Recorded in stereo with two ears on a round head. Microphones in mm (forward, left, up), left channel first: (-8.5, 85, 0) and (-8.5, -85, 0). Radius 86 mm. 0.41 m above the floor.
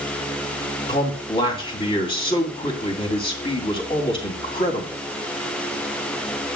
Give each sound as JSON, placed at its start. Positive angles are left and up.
{"t": 0.9, "sound": "a man speaking", "side_deg": 30, "distance_m": 3.0}